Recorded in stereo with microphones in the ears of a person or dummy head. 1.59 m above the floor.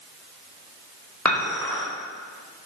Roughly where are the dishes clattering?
Centre.